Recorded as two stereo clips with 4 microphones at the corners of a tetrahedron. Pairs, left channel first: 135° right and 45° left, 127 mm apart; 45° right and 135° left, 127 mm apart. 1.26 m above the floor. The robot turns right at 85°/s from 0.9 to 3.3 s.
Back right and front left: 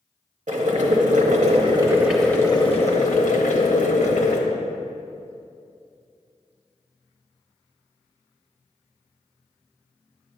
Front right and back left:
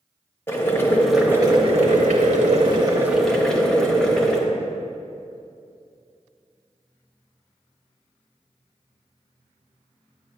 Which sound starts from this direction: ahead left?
Boiling, at 0.5 s.